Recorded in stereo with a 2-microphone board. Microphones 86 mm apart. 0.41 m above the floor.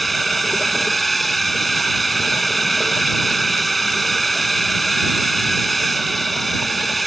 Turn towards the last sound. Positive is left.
turn(degrees=0)  # may be behind; listen again after turning